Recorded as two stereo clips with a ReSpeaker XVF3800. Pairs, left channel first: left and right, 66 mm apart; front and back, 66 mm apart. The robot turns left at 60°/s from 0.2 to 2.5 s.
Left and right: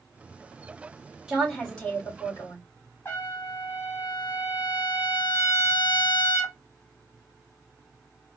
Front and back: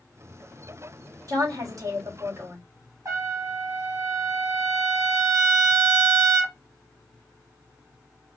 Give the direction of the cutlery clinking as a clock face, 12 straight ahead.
I don't hear cutlery clinking.